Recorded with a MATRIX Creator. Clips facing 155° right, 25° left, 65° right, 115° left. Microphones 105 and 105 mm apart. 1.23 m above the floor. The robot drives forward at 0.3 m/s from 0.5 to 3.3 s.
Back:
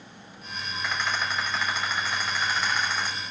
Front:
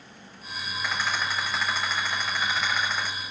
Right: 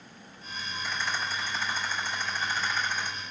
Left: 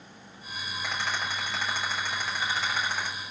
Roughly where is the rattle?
Left.